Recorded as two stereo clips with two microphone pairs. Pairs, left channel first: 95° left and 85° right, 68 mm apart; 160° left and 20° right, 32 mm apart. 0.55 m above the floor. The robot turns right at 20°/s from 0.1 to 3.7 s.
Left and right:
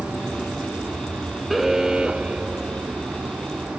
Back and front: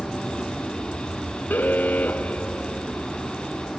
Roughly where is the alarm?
Behind.